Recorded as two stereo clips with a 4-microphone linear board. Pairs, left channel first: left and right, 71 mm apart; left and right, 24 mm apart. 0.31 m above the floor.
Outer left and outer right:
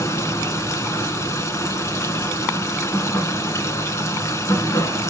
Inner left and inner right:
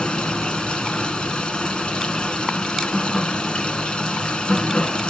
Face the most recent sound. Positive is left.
turn(degrees=45)  # may be behind; listen again after turning